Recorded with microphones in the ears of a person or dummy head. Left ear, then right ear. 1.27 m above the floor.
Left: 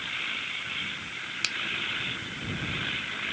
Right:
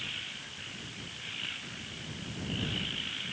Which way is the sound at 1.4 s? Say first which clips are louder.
Left 10 dB; 80° left.